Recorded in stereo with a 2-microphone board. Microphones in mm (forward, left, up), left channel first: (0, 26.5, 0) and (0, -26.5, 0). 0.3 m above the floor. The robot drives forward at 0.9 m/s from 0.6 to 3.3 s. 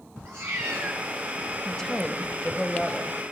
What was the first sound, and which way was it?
A cat meowing, 50° right (ahead or behind).